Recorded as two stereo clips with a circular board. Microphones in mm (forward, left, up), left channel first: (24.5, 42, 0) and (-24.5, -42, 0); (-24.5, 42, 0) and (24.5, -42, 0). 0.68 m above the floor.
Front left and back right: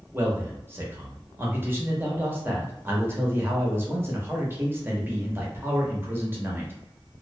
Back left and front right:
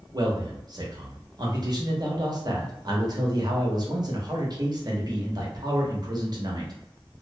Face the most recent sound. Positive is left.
turn(degrees=-65)